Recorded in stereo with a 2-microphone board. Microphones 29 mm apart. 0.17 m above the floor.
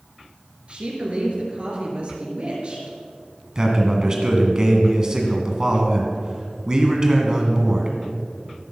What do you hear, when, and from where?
0.7 s a woman speaking: 40° right (ahead or behind), 3.5 m
3.5 s a man speaking: 25° right (ahead or behind), 1.8 m